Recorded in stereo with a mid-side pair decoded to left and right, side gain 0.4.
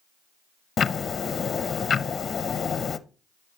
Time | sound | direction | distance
0.8 | ticking | 50° left | 0.6 m